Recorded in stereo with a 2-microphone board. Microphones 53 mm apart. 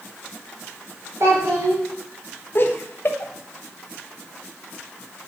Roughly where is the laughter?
Left.